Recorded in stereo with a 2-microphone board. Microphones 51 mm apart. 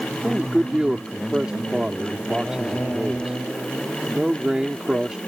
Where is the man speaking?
15° right (ahead or behind).